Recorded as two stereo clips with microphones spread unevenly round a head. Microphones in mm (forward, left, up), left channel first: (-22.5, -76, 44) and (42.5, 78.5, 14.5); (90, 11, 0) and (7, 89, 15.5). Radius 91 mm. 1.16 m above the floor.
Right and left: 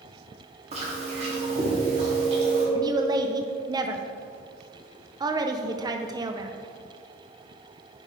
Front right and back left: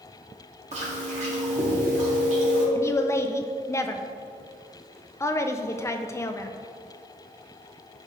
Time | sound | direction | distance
0.7 | chewing | 120° left | 2 m
2.8 | a woman speaking | 15° left | 0.5 m